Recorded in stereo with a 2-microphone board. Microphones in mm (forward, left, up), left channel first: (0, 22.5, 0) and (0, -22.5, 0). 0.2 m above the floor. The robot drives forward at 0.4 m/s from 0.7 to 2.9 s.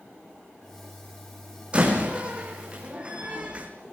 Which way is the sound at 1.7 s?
25° right (ahead or behind).